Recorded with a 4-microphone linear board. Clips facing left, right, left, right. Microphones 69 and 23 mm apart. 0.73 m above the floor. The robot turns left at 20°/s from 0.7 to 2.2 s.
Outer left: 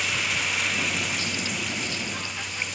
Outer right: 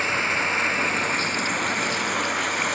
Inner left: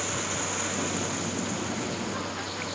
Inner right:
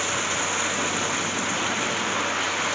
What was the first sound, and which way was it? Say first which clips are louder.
Running water: outer right 4 dB, inner right 6 dB; 35° right.